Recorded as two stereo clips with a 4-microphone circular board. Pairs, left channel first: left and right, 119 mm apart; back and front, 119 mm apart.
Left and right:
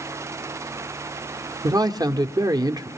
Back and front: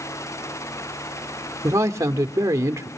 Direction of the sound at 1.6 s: 50° right.